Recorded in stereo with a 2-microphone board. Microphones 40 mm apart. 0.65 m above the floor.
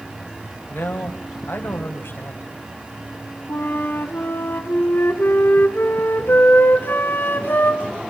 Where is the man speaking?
60° left (ahead or behind), 3.5 m.